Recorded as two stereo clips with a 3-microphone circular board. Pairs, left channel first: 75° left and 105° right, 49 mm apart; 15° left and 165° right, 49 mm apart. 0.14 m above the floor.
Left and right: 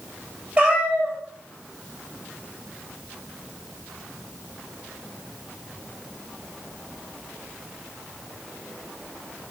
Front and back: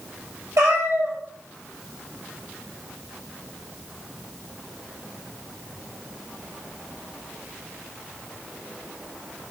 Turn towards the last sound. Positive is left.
turn(degrees=-170)